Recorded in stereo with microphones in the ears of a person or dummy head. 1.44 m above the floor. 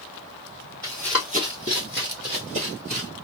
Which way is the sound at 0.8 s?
10° left (ahead or behind).